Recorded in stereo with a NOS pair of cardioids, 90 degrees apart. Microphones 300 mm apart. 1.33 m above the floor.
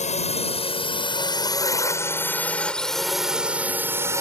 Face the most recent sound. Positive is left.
turn(degrees=-10)